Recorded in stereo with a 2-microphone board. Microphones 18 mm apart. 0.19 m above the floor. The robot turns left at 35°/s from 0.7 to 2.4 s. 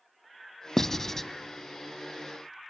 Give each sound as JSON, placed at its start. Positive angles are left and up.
{"t": 0.8, "sound": "writing", "side_deg": 20, "distance_m": 0.5}